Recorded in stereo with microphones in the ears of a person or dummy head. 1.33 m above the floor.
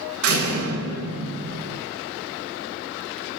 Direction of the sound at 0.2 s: 70° right (ahead or behind).